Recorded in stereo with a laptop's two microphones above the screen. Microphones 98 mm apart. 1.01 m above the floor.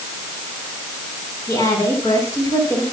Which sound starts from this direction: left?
A woman speaking, at 1.5 s.